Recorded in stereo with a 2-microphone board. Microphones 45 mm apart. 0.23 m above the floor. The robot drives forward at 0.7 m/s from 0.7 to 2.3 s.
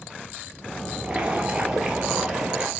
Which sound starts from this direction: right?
Boiling, at 1.0 s.